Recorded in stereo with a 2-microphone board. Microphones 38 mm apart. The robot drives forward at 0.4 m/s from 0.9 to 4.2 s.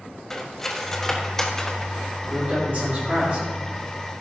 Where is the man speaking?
45° right (ahead or behind), 4.5 m.